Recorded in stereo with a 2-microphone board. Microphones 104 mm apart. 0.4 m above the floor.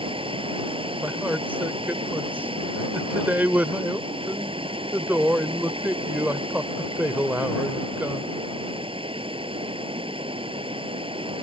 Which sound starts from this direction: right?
Running water, at 0.0 s.